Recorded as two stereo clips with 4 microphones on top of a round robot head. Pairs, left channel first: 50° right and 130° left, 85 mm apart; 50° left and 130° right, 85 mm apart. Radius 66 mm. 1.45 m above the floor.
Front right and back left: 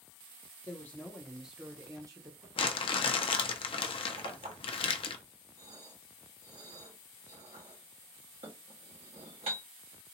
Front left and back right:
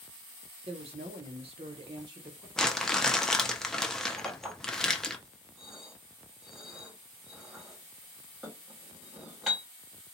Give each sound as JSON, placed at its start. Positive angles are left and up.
{"t": 0.7, "sound": "a woman speaking", "azimuth_deg": -110, "distance_m": 0.9}
{"t": 2.6, "sound": "crumpling", "azimuth_deg": -35, "distance_m": 0.6}
{"t": 4.2, "sound": "a clink", "azimuth_deg": 145, "distance_m": 2.0}